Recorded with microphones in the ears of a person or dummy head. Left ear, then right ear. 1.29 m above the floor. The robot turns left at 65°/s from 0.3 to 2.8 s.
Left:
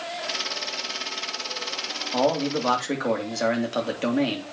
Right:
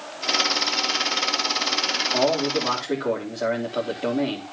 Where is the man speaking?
170° left, 3.5 m; by 4.5 s 125° left, 3.5 m.